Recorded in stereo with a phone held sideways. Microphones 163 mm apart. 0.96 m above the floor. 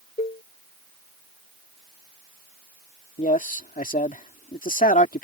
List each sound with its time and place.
0.2 s a cowbell: 40° left (ahead or behind)
3.2 s a man speaking: 55° left (ahead or behind)